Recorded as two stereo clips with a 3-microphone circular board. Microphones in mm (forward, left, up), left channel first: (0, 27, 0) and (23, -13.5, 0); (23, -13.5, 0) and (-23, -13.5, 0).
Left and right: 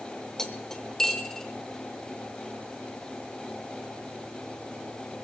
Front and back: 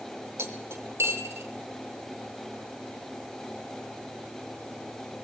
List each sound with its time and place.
0.4 s cutlery clinking: 160° right, 1.4 m